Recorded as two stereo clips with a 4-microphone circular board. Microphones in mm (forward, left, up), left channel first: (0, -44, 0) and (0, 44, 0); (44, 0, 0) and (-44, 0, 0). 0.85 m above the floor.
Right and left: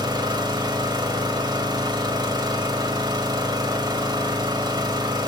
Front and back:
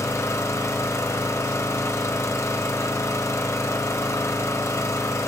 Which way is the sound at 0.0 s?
55° left.